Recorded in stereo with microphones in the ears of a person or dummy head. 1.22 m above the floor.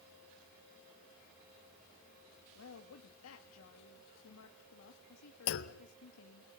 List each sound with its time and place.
2.5 s a woman speaking: 75° left (ahead or behind), 2.0 m
5.5 s a clunk: 70° left (ahead or behind), 1.2 m